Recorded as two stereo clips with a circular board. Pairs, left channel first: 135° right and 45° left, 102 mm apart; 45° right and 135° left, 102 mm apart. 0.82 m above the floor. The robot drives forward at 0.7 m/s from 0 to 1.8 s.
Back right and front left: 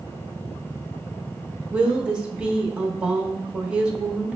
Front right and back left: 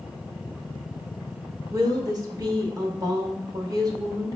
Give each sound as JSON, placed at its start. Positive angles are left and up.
{"t": 1.7, "sound": "a woman speaking", "azimuth_deg": 110, "distance_m": 0.7}